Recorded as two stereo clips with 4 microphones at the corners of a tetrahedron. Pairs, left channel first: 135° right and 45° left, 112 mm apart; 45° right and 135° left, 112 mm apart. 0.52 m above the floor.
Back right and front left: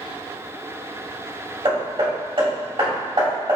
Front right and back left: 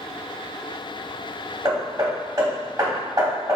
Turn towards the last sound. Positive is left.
turn(degrees=80)